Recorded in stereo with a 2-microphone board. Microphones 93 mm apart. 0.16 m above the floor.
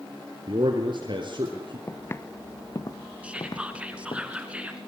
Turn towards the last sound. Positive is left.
turn(degrees=-10)  # may be behind; listen again after turning